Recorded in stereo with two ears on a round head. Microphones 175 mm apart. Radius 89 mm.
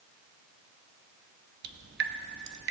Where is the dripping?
65° right (ahead or behind), 0.9 m.